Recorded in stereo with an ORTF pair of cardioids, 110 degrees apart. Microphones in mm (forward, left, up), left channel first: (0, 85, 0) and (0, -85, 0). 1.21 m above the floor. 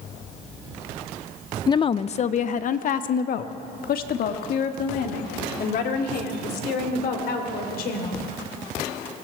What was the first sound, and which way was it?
A woman speaking, 25° left.